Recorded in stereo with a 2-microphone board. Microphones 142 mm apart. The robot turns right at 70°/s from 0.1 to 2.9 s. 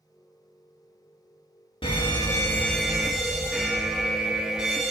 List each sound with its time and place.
1.8 s a fire alarm: 110° left, 1.7 m; by 4.9 s 170° right, 1.7 m